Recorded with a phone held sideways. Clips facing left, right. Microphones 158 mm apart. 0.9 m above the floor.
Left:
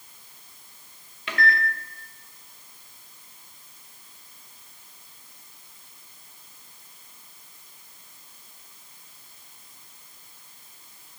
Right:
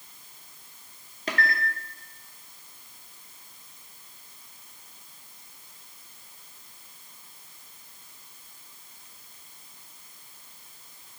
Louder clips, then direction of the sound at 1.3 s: Left 3 dB; 40° right (ahead or behind).